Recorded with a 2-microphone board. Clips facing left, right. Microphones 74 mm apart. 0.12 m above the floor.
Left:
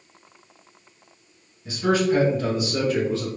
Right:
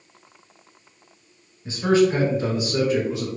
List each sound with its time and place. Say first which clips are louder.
1.6 s a man speaking: right 3 dB; 30° right (ahead or behind), 1.3 m; by 3.3 s 15° right (ahead or behind), 1.4 m